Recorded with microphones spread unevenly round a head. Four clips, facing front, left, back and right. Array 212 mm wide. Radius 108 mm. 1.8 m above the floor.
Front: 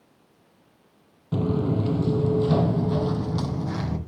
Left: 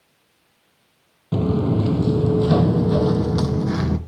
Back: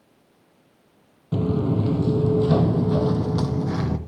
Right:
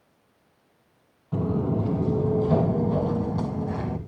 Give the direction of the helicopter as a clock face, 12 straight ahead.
No helicopter in this recording.